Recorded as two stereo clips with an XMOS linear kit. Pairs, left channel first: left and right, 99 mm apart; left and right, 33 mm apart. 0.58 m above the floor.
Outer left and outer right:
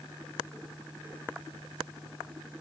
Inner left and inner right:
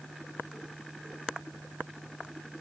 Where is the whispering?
I don't hear whispering.